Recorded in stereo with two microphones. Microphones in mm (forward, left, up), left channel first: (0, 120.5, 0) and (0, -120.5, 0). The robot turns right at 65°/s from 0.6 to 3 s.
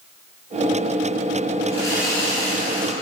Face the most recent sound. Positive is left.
turn(degrees=60)